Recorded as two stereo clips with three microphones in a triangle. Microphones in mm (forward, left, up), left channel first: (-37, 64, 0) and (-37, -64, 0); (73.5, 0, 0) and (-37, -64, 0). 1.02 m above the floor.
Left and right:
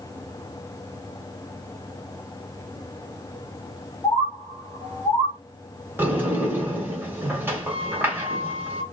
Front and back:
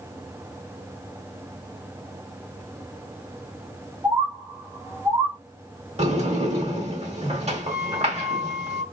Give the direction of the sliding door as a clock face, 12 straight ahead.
5 o'clock.